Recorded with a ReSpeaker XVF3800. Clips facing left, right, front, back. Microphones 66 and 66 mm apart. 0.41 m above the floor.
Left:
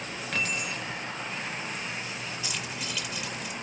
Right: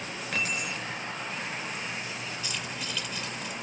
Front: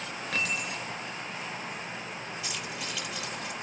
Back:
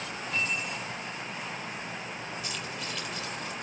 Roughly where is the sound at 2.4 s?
Ahead.